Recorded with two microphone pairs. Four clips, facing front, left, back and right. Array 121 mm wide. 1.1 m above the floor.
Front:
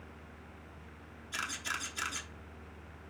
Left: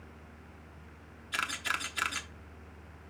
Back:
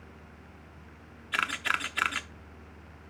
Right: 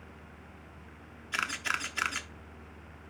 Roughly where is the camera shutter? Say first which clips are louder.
Right 1 dB, back 9 dB; behind.